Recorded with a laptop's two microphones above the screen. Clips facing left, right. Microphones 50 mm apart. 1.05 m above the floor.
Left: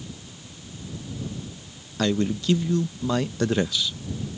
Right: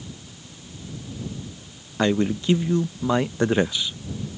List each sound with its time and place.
2.0 s a man speaking: 25° right (ahead or behind)